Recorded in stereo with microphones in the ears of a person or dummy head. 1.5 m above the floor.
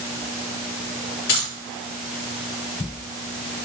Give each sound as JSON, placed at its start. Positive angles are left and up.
{"t": 1.3, "sound": "keys jangling", "side_deg": 50, "distance_m": 2.5}